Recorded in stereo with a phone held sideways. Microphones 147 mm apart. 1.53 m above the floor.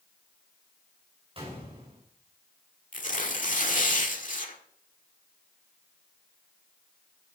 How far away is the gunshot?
About 5 m.